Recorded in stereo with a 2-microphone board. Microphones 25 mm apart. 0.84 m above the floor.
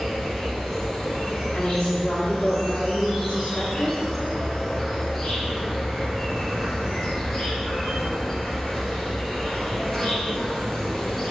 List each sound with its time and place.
0.0 s an insect: 5° left (ahead or behind), 1.5 m
1.5 s a woman speaking: 40° left (ahead or behind), 1.6 m